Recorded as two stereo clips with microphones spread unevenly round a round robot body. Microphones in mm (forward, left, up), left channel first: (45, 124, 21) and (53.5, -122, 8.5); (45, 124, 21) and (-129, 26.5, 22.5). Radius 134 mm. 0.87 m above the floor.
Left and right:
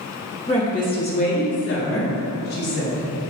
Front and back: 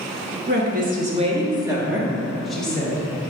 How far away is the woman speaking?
About 2 m.